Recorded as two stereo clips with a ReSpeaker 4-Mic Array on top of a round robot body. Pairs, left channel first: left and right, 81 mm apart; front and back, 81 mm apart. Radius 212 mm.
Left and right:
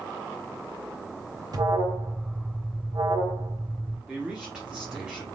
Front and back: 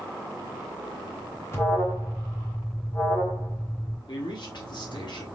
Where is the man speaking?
10° right, 1.3 m.